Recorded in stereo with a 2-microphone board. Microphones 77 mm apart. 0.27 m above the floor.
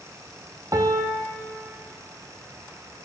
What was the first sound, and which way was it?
A piano, 50° right (ahead or behind).